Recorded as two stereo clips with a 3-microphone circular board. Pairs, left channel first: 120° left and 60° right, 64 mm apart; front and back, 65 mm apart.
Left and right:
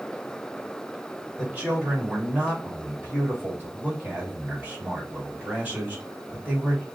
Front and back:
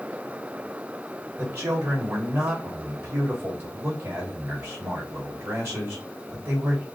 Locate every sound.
1.4 s a man speaking: 125° right, 2.5 m